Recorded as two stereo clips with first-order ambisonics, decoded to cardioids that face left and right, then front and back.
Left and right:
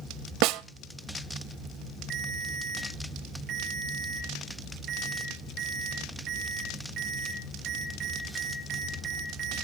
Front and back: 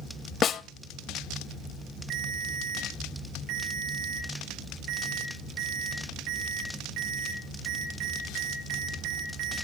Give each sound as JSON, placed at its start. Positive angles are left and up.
{"t": 0.4, "sound": "a snare drum", "azimuth_deg": -65, "distance_m": 0.6}
{"t": 2.1, "sound": "a ringtone", "azimuth_deg": -145, "distance_m": 5.0}